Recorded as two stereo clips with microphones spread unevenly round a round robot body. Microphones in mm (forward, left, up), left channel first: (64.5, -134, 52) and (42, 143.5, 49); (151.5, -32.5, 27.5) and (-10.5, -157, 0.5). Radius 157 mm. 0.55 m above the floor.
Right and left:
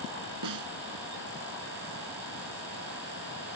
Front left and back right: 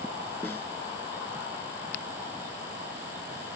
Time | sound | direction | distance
0.4 | a snare drum | 120° left | ?